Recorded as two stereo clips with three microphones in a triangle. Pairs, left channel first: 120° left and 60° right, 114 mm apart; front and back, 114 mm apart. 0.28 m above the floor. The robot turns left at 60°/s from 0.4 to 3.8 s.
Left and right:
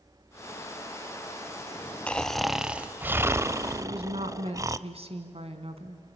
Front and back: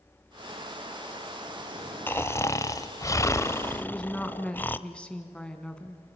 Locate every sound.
2.1 s snoring: 50° left, 0.6 m; by 4.8 s 50° right, 0.6 m
3.8 s a woman speaking: 80° right, 2.5 m